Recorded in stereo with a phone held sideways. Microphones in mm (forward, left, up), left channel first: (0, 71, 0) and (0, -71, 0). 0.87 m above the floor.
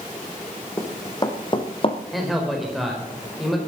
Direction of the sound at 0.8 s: 25° left (ahead or behind).